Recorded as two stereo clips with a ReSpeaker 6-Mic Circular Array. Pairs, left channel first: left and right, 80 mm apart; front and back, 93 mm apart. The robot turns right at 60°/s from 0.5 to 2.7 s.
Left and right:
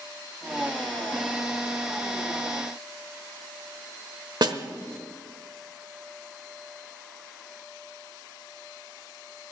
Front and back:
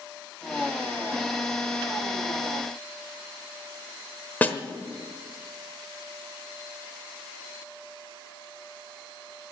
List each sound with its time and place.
4.4 s a snare drum: 70° right, 1.1 m